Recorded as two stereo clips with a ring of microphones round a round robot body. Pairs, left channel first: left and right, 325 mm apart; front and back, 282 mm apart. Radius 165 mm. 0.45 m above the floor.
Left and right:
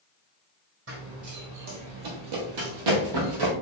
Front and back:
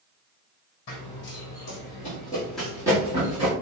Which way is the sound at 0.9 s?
35° right.